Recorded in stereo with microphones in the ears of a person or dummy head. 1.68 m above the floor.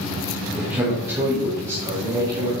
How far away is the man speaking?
About 2 m.